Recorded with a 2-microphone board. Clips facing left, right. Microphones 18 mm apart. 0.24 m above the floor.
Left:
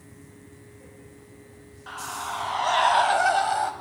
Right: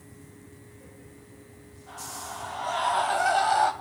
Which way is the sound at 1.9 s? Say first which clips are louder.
Left 6 dB; 65° left (ahead or behind).